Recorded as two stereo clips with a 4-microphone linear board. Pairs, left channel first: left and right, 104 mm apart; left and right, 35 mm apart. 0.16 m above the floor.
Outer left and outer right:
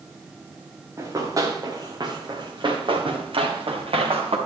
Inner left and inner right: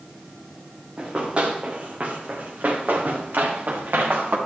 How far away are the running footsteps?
About 3.5 m.